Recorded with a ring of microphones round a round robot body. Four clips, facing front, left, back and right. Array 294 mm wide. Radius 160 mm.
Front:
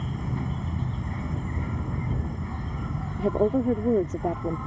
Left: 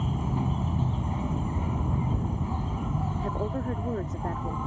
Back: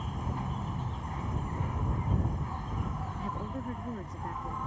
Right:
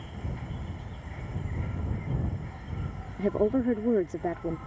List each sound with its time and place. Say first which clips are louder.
0.0 s an insect: left 11 dB, front 4 dB; 65° left
3.2 s a woman speaking: right 11 dB, front 17 dB; 30° right